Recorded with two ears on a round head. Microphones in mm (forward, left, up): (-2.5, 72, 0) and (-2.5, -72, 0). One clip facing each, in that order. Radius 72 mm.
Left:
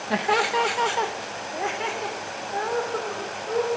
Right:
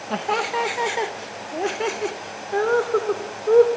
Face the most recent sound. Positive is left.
turn(degrees=-75)  # may be behind; listen again after turning